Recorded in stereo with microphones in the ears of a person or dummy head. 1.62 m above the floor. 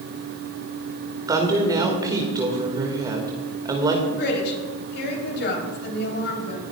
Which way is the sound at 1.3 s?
20° right (ahead or behind).